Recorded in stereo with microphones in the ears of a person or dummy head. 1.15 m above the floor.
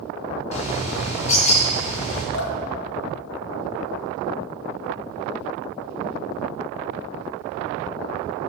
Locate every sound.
0.5 s a bird: 40° left (ahead or behind), 3 m
2.3 s dripping: 65° left (ahead or behind), 0.8 m